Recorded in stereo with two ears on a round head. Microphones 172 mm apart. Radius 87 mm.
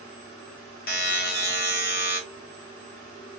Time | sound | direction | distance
0.9 | a buzzer | 50° left (ahead or behind) | 1.6 m